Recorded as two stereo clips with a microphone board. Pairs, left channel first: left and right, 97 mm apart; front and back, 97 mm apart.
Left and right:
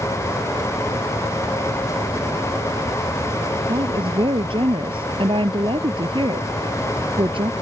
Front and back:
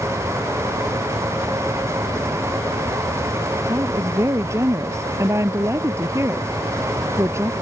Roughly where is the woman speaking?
Behind right.